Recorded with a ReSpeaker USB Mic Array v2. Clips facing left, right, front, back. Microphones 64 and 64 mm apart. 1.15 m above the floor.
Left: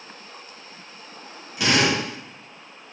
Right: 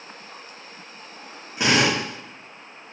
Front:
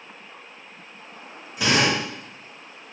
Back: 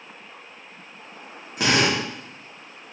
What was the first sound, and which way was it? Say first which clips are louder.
A drill: right 1 dB, even; 150° right.